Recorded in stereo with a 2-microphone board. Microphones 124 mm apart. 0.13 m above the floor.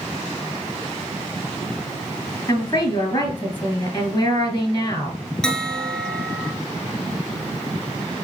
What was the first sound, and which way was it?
A woman speaking, 35° left (ahead or behind).